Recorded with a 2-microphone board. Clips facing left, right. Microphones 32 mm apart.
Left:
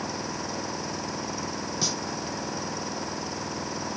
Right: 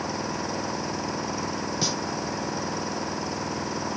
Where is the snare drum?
10° right (ahead or behind).